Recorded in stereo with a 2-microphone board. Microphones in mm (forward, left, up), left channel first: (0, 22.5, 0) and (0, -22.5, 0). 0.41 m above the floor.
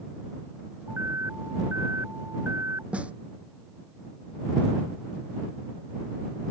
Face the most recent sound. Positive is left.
turn(degrees=-30)  # may be behind; listen again after turning